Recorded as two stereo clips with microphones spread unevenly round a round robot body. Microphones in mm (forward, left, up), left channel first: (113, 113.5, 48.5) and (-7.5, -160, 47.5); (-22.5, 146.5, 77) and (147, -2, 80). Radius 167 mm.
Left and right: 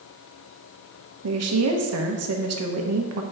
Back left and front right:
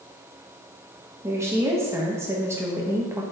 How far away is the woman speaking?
About 1.1 m.